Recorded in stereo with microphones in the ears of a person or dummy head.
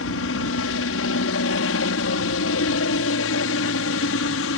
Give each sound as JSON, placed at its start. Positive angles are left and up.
{"t": 0.0, "sound": "a helicopter", "side_deg": 70}